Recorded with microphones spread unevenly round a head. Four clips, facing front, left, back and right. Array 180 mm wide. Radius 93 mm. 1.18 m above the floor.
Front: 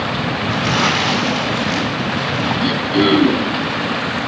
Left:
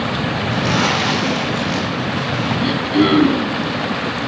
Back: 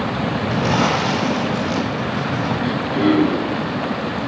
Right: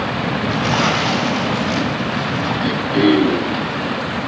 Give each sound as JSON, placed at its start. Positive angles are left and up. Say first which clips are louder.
{"t": 0.5, "sound": "crumpling", "louder": "even, even", "azimuth_deg": 165, "distance_m": 5.0}
{"t": 2.6, "sound": "throat clearing", "louder": "even, front 3 dB", "azimuth_deg": 45, "distance_m": 4.5}